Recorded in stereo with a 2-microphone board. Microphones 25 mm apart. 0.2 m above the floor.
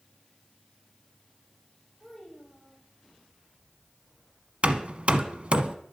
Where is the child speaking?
5° right (ahead or behind), 8.5 m.